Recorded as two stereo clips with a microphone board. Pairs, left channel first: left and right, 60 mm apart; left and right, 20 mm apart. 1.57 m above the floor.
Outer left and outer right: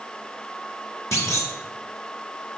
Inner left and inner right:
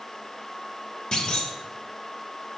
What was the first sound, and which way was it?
A clunk, 50° left (ahead or behind).